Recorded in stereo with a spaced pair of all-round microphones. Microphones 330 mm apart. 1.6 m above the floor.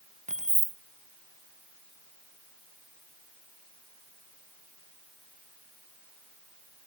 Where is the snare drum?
No snare drum in this recording.